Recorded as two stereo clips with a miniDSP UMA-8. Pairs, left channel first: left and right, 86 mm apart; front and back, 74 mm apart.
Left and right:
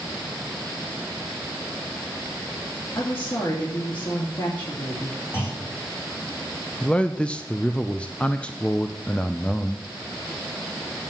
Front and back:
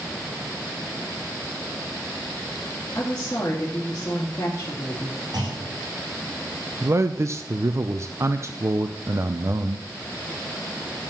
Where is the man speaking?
160° left, 0.5 m.